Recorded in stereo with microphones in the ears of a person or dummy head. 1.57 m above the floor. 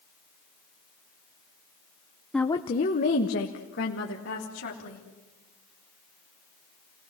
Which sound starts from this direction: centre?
A woman speaking, at 2.3 s.